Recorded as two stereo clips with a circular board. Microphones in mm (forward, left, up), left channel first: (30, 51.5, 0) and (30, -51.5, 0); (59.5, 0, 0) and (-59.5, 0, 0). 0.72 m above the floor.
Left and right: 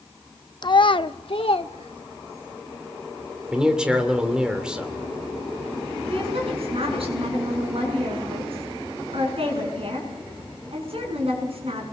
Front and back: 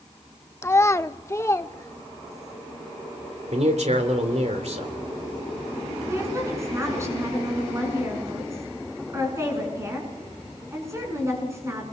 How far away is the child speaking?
About 0.6 m.